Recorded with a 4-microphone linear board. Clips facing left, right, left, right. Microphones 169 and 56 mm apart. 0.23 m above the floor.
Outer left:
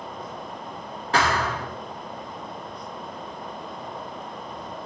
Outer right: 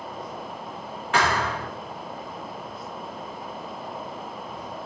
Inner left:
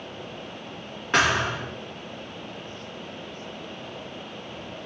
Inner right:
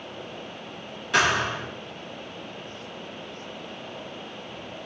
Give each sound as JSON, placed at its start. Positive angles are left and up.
{"t": 1.1, "sound": "a thud", "side_deg": 35, "distance_m": 4.0}